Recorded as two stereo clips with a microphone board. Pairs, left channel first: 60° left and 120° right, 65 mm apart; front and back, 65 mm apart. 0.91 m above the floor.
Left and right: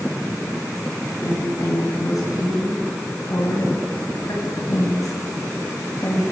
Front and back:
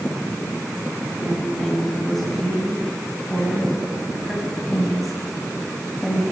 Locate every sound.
1.2 s a woman speaking: 85° left, 9.5 m; by 6.2 s 90° left, 5.5 m